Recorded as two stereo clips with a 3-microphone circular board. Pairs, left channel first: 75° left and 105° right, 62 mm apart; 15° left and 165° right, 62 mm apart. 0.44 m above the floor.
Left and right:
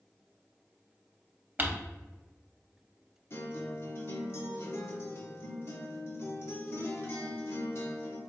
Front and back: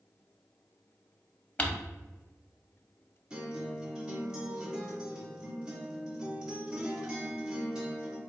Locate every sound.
1.6 s crumpling: 50° right, 0.8 m
3.3 s a guitar: 115° left, 1.8 m